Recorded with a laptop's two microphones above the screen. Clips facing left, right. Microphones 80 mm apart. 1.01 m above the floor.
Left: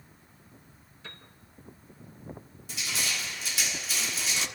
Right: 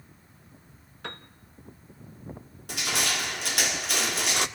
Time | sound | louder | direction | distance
1.0 | a piano | right 9 dB | 65° right (ahead or behind) | 1.3 m
2.7 | crushing | right 5 dB | 65° right (ahead or behind) | 1.3 m